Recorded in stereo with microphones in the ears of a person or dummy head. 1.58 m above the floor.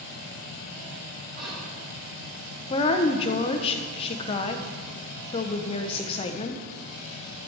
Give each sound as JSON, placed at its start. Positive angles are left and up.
{"t": 1.4, "sound": "whispering", "side_deg": -45, "distance_m": 3.0}
{"t": 2.7, "sound": "a woman speaking", "side_deg": 35, "distance_m": 0.8}